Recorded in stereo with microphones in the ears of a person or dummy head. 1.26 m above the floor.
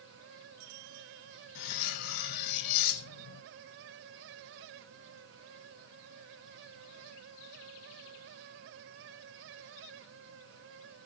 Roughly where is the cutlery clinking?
Left.